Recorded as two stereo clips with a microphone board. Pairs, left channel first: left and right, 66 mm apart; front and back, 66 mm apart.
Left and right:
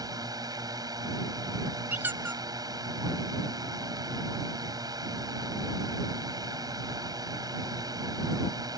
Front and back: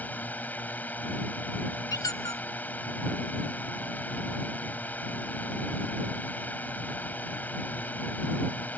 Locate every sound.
0.0 s a drone: 65° right
1.9 s a squeak: 25° right